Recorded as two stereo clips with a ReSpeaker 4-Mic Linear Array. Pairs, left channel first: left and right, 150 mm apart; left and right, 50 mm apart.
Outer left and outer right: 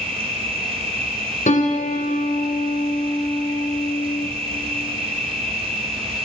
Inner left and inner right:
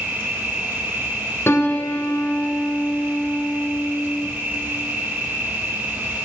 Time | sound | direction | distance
0.0 | an insect | 40° right (ahead or behind) | 1.7 m
1.5 | a piano | 60° left (ahead or behind) | 0.9 m